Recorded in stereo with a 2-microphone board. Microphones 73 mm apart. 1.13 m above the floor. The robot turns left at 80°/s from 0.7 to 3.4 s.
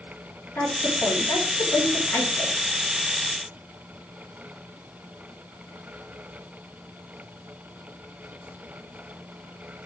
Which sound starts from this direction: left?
A woman speaking, at 0.6 s.